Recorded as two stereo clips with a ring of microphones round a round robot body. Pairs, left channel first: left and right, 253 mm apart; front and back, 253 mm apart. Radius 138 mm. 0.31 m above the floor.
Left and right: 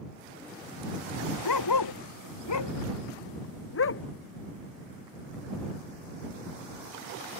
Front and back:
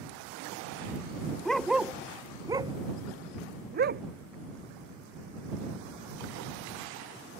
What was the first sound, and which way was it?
A dog barking, 85° left.